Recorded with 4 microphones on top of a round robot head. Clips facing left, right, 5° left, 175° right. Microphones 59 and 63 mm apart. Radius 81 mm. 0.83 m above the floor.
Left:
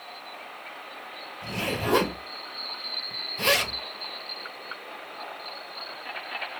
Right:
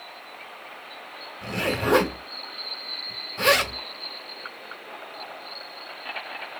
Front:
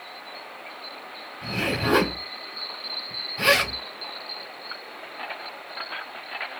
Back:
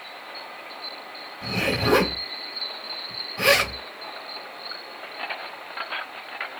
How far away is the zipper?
About 1.8 m.